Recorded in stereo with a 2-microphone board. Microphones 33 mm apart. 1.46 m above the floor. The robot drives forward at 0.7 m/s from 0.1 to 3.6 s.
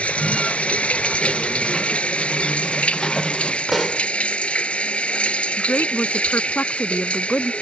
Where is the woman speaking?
70° left (ahead or behind).